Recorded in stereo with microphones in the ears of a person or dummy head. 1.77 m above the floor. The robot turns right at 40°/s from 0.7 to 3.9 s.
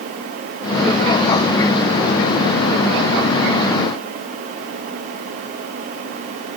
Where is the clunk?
No clunk in this recording.